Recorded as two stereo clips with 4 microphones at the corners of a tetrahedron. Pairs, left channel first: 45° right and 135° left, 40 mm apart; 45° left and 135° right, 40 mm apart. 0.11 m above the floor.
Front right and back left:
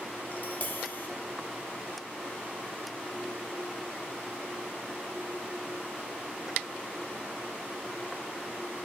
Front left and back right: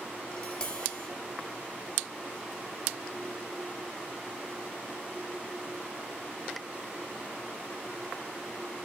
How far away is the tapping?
About 1.2 m.